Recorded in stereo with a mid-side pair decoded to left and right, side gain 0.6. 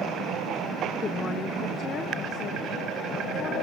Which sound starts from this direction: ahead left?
A woman speaking, at 1.0 s.